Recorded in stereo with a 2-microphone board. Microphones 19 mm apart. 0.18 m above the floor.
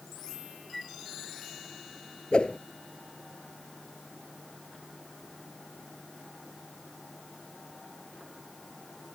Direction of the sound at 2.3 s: 55° left (ahead or behind).